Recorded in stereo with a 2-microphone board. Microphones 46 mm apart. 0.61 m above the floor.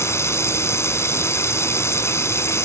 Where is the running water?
75° left (ahead or behind).